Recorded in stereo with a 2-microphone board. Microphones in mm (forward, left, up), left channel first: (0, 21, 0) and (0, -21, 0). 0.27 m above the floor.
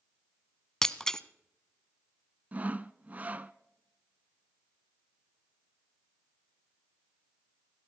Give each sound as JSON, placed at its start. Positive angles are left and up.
{"t": 0.8, "sound": "breaking glass", "side_deg": 15, "distance_m": 0.6}
{"t": 2.5, "sound": "sawing", "side_deg": -35, "distance_m": 0.5}